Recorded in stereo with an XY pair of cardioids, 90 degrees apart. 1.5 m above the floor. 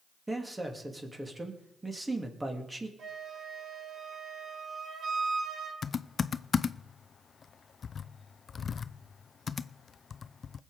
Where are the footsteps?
I don't hear footsteps.